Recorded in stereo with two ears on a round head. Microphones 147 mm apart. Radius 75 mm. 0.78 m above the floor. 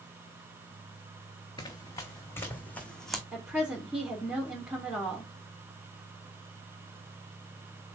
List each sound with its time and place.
1.6 s running footsteps: 25° left (ahead or behind), 3 m; by 3.2 s centre (ahead or behind), 1.8 m
3.3 s a woman speaking: 10° right (ahead or behind), 2.5 m